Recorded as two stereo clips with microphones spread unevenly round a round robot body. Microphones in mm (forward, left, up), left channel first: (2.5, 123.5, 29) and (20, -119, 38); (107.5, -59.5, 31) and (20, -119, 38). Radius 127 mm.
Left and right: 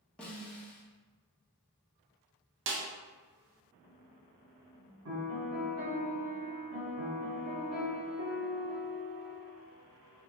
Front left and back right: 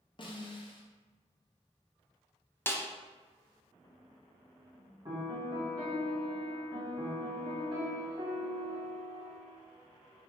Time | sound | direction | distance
0.2 | a snare drum | 10° left | 0.7 m
2.7 | a snare drum | 40° right | 0.6 m
5.0 | a piano | 100° right | 1.6 m